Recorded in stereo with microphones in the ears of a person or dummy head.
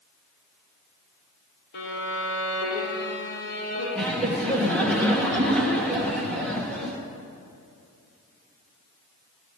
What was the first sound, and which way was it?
A violin, 60° left (ahead or behind).